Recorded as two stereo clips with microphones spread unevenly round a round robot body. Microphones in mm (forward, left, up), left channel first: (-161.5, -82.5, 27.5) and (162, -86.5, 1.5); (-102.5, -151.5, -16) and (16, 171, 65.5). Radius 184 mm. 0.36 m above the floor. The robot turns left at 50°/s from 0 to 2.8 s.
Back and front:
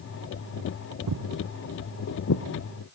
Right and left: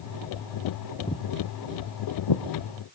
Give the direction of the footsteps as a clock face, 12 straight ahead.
1 o'clock.